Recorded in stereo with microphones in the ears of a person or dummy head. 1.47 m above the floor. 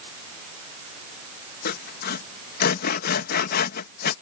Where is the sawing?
55° left (ahead or behind).